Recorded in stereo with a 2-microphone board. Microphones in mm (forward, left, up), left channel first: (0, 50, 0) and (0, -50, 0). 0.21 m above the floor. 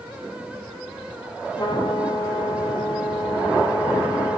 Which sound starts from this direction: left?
A trumpet, at 1.6 s.